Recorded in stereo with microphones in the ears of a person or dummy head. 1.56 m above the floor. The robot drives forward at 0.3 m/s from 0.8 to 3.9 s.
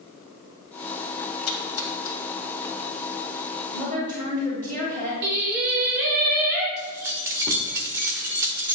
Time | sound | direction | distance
1.5 | a splash | 75° left (ahead or behind) | 1.9 m
3.7 | a woman speaking | 15° left (ahead or behind) | 1.7 m
5.2 | singing | 55° right (ahead or behind) | 1.5 m
6.8 | keys jangling | 20° right (ahead or behind) | 1.0 m